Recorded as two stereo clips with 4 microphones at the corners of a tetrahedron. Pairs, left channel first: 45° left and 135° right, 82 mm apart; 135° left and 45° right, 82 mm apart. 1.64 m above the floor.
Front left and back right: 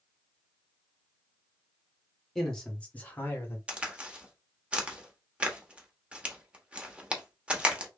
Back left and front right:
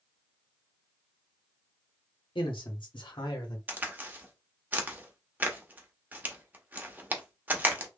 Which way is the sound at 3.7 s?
80° right.